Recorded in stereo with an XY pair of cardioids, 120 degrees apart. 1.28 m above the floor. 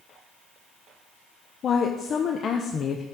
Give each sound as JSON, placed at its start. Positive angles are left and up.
{"t": 1.6, "sound": "a woman speaking", "azimuth_deg": 45, "distance_m": 0.7}